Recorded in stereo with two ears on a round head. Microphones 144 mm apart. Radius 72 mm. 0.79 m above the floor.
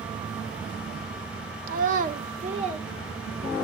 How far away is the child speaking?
About 0.8 m.